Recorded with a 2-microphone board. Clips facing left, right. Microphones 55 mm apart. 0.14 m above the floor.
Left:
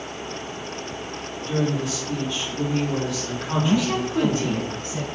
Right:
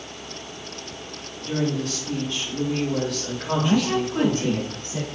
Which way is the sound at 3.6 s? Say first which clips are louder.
Even; 50° right (ahead or behind).